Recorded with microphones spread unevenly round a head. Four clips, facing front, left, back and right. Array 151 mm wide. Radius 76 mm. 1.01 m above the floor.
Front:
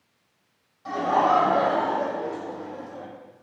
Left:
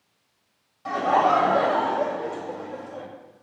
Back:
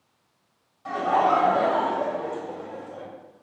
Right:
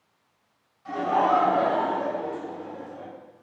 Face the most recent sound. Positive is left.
turn(degrees=90)